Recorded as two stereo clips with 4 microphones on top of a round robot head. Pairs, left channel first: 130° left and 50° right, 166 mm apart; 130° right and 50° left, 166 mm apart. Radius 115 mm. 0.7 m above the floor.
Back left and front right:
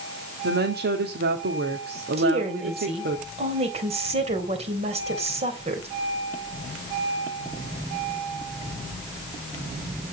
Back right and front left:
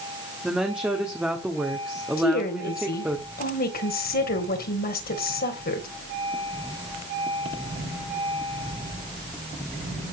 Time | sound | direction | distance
0.4 | a woman speaking | 35° right | 2 m
2.2 | a woman speaking | 100° right | 3 m